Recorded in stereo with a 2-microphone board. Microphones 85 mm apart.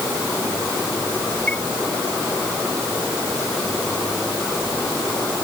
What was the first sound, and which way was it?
A chime, 15° left (ahead or behind).